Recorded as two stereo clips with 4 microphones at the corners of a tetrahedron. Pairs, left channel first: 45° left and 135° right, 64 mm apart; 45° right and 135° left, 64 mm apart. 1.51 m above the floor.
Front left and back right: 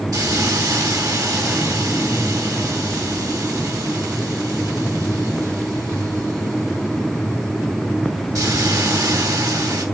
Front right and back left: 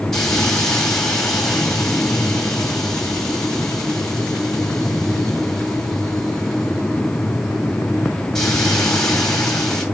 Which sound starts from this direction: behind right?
A hiss, at 0.1 s.